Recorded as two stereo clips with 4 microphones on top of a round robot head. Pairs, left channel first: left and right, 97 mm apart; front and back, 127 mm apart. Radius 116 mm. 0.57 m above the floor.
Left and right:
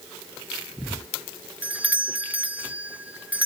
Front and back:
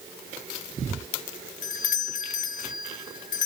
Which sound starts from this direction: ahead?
A doorbell, at 1.6 s.